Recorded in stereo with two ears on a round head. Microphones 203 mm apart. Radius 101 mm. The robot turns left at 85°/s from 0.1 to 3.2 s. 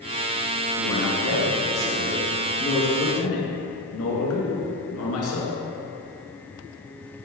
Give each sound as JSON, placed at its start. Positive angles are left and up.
{"t": 0.8, "sound": "a man speaking", "azimuth_deg": -50, "distance_m": 1.9}